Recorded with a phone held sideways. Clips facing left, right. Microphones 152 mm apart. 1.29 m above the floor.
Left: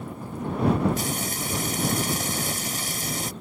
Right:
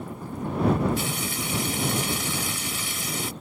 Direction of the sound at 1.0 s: 45° left (ahead or behind).